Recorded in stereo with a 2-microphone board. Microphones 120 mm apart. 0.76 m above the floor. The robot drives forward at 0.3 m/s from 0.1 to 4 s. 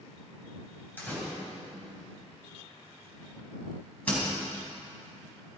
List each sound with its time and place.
1.0 s a door slam: 15° left (ahead or behind), 3.5 m; by 4.3 s 10° left (ahead or behind), 4.5 m